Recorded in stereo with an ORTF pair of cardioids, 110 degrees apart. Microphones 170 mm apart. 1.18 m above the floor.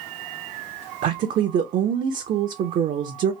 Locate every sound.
1.0 s a woman speaking: 50° right, 0.6 m